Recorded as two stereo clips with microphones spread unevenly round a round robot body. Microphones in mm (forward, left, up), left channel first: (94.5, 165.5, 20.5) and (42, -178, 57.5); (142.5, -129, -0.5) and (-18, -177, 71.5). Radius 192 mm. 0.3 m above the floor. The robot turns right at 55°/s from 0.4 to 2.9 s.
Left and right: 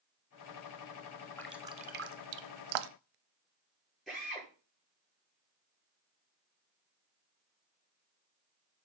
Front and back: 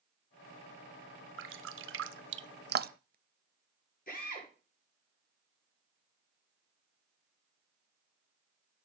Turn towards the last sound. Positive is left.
turn(degrees=-10)